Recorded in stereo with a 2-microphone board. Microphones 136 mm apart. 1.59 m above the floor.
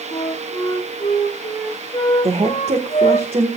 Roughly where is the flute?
Left.